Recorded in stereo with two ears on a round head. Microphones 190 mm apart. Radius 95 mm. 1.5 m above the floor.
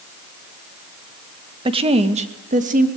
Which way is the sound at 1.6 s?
25° right (ahead or behind).